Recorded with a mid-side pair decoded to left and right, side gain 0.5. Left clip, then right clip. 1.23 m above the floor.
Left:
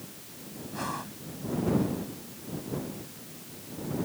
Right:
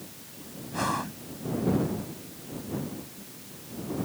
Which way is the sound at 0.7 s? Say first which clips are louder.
Right 6 dB; 35° right.